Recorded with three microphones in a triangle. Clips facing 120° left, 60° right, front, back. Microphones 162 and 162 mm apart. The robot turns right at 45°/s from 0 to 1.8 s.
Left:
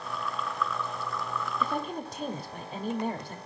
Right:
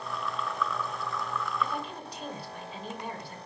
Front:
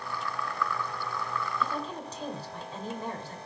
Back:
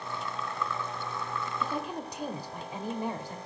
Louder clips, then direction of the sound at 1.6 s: Left 3 dB, even; 100° left.